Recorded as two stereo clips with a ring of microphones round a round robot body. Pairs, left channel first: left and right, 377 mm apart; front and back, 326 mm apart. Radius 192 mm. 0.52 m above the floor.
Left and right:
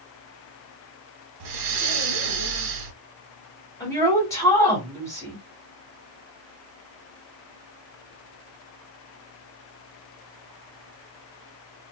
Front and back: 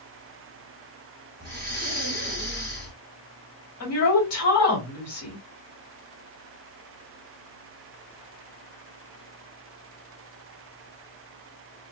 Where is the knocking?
No knocking in this recording.